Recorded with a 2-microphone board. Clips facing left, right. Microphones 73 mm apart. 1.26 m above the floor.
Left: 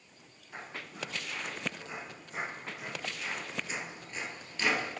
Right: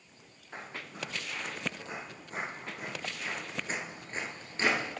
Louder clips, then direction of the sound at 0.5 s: Right 1 dB; 35° right (ahead or behind).